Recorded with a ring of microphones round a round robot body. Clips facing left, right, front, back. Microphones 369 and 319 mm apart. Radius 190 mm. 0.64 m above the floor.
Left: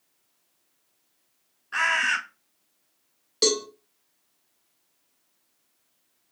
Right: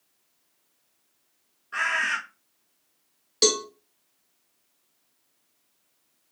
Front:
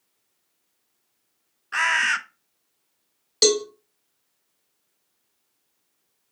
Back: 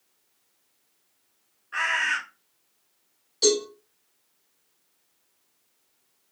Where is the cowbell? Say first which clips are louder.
Even, front 2 dB; 10° right, 0.8 m.